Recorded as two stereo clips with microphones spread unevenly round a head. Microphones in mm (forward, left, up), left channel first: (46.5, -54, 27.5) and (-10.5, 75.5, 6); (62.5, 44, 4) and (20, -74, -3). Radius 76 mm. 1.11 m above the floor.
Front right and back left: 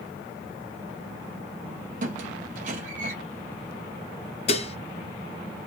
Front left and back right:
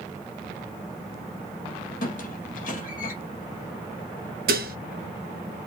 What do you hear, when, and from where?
2.0 s a squeak: 80° left, 2.5 m
4.5 s dishes clattering: 120° right, 0.7 m